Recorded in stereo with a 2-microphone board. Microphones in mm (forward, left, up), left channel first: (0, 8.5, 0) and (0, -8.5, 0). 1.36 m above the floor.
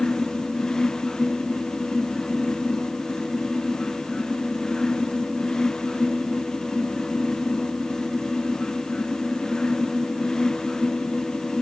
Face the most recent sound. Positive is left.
No sound to turn to.